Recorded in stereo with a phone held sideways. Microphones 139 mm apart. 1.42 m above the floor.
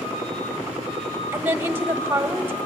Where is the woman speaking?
15° right (ahead or behind), 1.5 m.